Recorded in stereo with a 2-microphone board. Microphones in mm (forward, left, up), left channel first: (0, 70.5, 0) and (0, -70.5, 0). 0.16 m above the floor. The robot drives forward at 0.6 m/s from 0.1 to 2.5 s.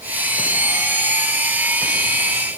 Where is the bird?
I don't hear a bird.